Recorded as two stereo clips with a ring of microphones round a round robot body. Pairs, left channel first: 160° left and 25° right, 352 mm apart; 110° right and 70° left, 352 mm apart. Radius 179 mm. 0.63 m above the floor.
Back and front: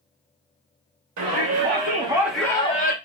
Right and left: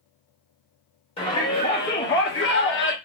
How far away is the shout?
About 1.2 m.